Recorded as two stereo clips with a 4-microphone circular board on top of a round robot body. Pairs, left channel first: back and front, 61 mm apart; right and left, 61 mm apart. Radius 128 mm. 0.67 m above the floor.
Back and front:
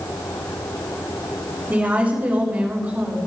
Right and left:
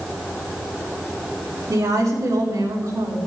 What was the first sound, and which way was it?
A woman speaking, 60° left.